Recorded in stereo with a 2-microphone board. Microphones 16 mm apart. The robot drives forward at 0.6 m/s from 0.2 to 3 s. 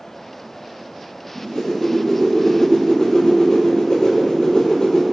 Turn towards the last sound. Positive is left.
turn(degrees=70)  # may be behind; listen again after turning